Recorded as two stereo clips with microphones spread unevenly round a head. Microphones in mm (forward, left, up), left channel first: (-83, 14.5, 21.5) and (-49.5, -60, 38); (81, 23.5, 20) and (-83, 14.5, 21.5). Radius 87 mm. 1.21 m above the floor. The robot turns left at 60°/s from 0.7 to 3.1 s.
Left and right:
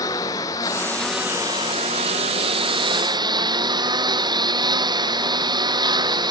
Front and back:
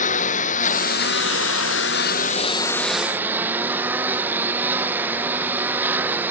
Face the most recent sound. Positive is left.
turn(degrees=-95)